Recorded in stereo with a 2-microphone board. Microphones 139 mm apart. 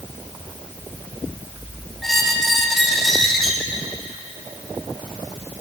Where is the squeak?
Centre (ahead or behind), 1.0 m.